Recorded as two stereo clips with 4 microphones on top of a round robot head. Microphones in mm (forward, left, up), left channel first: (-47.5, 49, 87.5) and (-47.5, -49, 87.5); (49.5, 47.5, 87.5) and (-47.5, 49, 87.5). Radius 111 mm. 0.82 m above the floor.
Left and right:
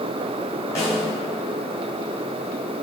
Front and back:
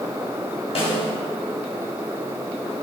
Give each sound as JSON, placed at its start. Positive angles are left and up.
{"t": 0.8, "sound": "a snare drum", "azimuth_deg": 20, "distance_m": 2.5}